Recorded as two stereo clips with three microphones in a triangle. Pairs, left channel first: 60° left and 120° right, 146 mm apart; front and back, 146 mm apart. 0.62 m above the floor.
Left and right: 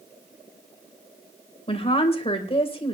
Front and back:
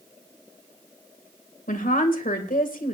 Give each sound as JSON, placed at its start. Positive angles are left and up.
{"t": 1.7, "sound": "a woman speaking", "azimuth_deg": 10, "distance_m": 2.5}